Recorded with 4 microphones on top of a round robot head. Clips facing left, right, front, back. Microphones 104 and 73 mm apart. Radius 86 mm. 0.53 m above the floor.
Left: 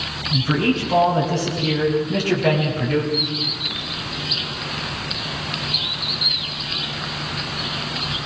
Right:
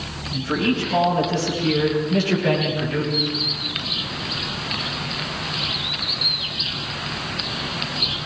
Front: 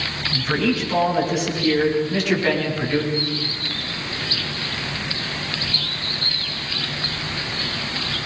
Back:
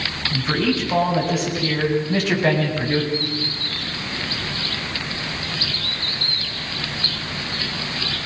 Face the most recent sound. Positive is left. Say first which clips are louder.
# even, even
turn(degrees=-145)